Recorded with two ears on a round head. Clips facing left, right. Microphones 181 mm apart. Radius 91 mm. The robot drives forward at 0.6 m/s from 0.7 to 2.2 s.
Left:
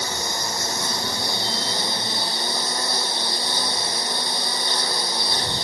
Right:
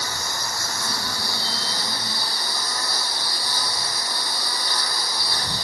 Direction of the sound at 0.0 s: 20° left (ahead or behind).